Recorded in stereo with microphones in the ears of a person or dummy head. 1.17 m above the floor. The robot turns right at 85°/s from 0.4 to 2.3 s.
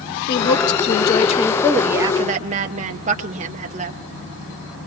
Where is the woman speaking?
60° left, 0.9 m; by 4.0 s 140° right, 0.9 m.